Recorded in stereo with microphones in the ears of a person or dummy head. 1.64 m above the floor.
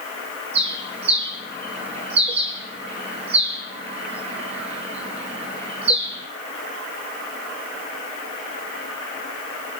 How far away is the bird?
About 9.5 m.